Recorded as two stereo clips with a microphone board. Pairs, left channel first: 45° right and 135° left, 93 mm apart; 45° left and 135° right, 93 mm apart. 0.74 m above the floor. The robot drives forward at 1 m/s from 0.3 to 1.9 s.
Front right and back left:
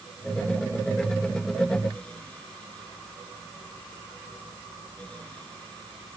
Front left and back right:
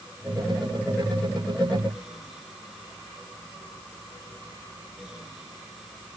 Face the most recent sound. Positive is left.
No sound to turn to.